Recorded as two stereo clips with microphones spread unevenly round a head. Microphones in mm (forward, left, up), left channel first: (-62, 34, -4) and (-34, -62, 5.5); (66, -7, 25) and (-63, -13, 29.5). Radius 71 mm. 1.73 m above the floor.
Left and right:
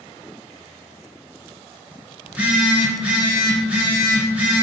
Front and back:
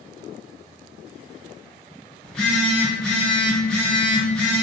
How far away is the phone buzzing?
About 1.2 m.